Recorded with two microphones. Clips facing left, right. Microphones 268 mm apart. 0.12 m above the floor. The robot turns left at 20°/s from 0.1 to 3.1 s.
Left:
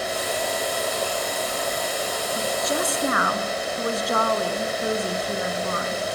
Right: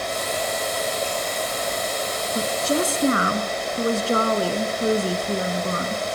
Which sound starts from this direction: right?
A woman speaking, at 2.4 s.